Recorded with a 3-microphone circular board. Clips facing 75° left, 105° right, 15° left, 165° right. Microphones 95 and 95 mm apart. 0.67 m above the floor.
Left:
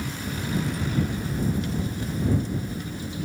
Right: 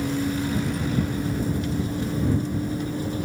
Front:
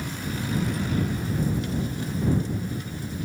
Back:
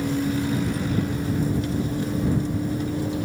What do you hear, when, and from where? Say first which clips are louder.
0.0 s a vehicle: right 7 dB, back 8 dB; 145° right; by 3.3 s 150° right